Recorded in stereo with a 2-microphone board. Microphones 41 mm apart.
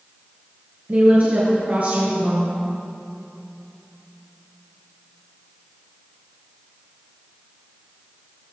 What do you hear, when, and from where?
0.9 s a woman speaking: 40° right (ahead or behind), 1.9 m